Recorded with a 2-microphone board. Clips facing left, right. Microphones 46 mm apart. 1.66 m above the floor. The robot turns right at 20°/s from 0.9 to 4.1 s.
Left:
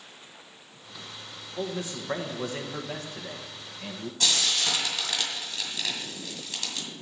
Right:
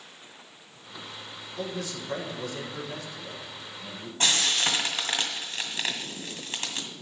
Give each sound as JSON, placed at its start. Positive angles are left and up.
{"t": 1.6, "sound": "a man speaking", "azimuth_deg": 25, "distance_m": 1.5}
{"t": 4.2, "sound": "frying", "side_deg": -35, "distance_m": 1.9}